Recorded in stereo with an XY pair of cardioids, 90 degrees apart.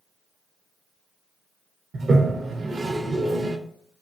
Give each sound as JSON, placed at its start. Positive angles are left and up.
{"t": 1.9, "sound": "a toilet flushing", "azimuth_deg": -45, "distance_m": 0.6}